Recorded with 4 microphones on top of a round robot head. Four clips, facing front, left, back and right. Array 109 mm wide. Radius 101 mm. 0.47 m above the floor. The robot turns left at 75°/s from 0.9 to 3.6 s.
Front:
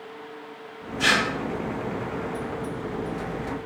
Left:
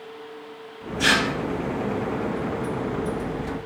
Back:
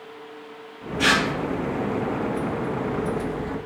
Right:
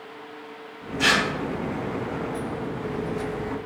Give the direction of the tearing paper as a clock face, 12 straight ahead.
5 o'clock.